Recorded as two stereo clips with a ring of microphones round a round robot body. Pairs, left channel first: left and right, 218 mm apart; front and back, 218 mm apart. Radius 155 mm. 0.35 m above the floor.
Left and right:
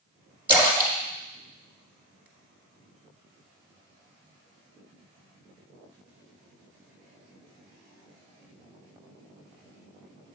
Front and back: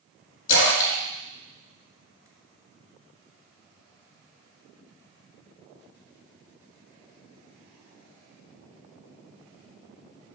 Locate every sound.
0.5 s a splash: 10° right, 1.9 m